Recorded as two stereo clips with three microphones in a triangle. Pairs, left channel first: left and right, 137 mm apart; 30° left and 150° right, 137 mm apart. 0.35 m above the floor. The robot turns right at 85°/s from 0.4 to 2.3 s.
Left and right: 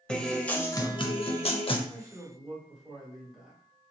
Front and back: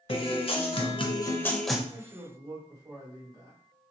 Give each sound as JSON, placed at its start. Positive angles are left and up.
{"t": 0.1, "sound": "a guitar", "azimuth_deg": 10, "distance_m": 0.5}
{"t": 1.9, "sound": "a man speaking", "azimuth_deg": 150, "distance_m": 1.5}